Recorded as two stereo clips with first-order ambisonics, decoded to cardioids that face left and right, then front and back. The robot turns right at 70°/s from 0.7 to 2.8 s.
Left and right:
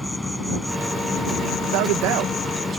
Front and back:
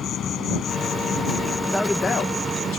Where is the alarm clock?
I don't hear an alarm clock.